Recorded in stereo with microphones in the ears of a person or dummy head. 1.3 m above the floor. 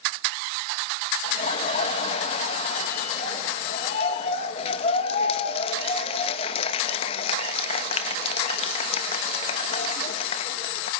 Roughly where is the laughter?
Left.